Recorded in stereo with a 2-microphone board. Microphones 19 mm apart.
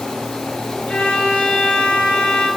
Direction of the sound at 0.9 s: 70° left (ahead or behind).